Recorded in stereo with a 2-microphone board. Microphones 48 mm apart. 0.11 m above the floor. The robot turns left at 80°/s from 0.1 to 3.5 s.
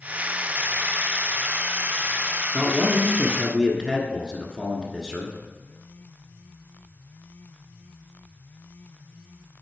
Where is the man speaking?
15° left (ahead or behind), 1.4 m.